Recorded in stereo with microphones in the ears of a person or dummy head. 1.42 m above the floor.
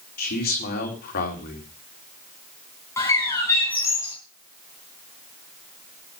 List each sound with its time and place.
0.2 s a man speaking: 50° left (ahead or behind), 3.5 m
3.0 s a bird: 15° left (ahead or behind), 3.5 m